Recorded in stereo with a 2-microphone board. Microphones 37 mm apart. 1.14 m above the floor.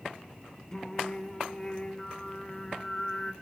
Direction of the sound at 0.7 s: 20° left (ahead or behind).